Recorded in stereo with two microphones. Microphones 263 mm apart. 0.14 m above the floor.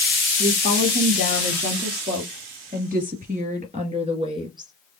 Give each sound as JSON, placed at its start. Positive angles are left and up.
{"t": 0.4, "sound": "a woman speaking", "side_deg": -45, "distance_m": 3.5}